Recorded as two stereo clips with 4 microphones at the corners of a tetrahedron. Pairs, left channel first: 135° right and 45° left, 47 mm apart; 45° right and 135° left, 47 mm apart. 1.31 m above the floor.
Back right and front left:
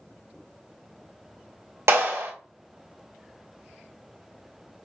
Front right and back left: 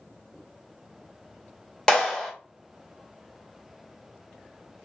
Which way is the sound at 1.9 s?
30° left.